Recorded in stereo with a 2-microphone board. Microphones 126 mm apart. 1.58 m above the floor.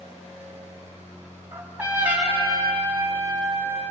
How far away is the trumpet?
About 5 m.